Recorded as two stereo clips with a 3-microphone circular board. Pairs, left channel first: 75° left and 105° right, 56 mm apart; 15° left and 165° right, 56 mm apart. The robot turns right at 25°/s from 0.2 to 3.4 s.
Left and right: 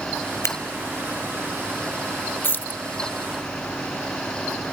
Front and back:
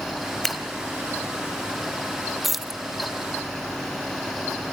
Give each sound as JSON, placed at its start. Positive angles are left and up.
{"t": 0.4, "sound": "scissors", "azimuth_deg": 100, "distance_m": 2.0}
{"t": 2.4, "sound": "keys jangling", "azimuth_deg": 110, "distance_m": 0.8}